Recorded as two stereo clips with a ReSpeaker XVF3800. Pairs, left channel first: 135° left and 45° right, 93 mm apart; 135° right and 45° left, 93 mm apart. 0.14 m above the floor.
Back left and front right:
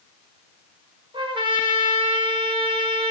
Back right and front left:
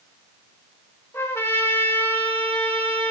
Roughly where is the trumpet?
Right.